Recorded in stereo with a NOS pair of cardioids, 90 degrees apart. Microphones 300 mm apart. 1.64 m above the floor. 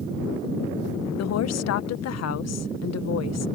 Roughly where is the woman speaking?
Ahead left.